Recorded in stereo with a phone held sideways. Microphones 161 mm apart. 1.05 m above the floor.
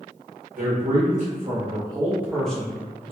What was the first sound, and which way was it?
A man speaking, 60° right (ahead or behind).